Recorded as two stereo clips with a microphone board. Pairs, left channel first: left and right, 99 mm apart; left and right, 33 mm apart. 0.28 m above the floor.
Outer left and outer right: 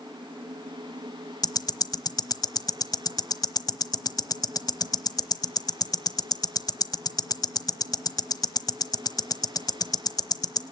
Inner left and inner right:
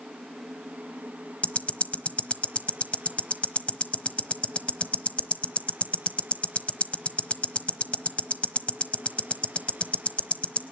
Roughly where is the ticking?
Left.